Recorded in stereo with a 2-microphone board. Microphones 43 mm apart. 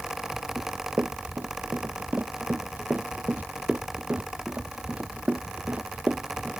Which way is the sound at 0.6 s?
45° right (ahead or behind).